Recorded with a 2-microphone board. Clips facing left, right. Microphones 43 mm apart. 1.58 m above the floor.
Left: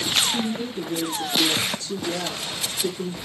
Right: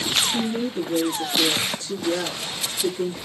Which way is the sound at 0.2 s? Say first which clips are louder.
Right 1 dB; 85° right.